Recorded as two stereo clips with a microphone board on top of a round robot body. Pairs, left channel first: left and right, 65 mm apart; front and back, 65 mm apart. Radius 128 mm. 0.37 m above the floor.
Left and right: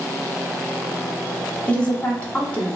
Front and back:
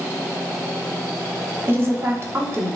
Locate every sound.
1.7 s a woman speaking: 150° left, 1.4 m